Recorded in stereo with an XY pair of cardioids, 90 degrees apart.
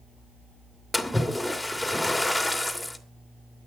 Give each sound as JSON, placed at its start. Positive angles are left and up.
{"t": 0.9, "sound": "a splash", "azimuth_deg": 10, "distance_m": 2.5}